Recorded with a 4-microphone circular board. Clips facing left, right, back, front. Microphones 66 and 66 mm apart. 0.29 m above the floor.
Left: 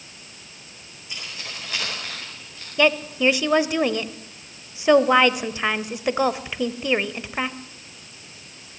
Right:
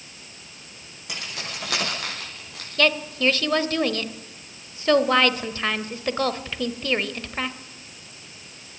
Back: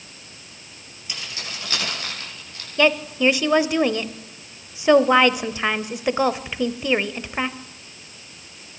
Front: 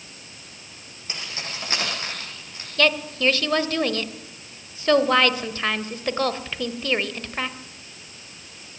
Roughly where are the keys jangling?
Ahead right.